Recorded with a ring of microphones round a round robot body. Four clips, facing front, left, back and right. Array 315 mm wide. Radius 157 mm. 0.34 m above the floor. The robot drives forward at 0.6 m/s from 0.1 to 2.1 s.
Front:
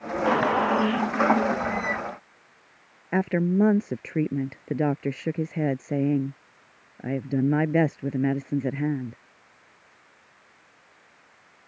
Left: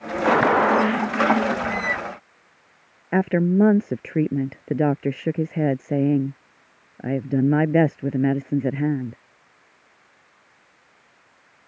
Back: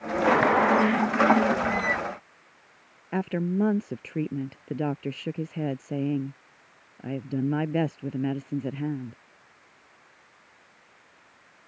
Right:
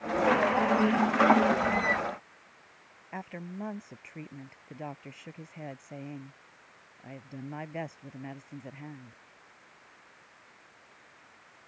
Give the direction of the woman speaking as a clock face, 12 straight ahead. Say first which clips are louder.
Left 21 dB, front 4 dB; 9 o'clock.